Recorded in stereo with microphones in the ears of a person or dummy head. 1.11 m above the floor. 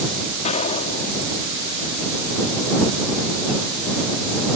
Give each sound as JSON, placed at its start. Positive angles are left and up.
{"t": 0.5, "sound": "an explosion", "side_deg": 40}